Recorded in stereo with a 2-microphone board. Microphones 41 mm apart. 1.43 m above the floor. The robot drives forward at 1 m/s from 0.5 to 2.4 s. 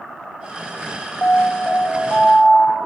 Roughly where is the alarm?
Left.